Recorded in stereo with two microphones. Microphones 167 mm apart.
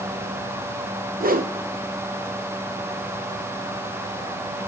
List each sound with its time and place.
1.2 s a whoosh: 60° right (ahead or behind), 1.0 m